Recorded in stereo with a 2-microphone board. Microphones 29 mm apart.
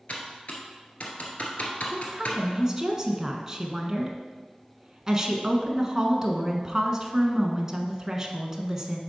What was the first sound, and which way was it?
Typing on a keyboard, 60° left (ahead or behind).